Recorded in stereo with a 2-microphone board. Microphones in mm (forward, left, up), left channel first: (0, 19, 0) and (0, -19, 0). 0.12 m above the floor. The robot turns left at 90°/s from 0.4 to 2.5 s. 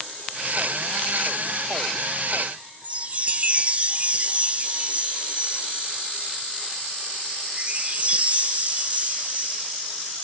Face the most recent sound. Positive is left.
turn(degrees=-35)  # may be behind; listen again after turning